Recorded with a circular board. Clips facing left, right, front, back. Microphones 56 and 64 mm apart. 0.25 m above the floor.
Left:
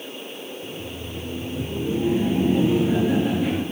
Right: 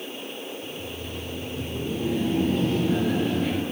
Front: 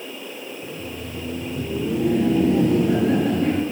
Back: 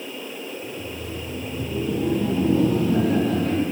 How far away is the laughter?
About 4.5 m.